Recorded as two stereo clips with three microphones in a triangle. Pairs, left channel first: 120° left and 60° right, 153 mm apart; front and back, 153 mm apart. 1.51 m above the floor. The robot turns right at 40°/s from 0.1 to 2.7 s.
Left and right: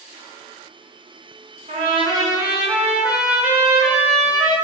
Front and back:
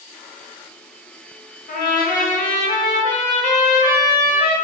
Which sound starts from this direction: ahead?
A trumpet, at 1.7 s.